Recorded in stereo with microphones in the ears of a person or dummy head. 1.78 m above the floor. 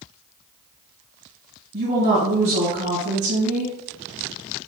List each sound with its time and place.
1.7 s a woman speaking: 45° right (ahead or behind), 2.5 m